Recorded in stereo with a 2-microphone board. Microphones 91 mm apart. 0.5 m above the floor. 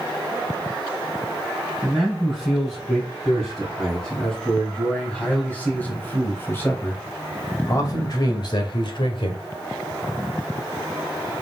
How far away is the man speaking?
About 5.5 m.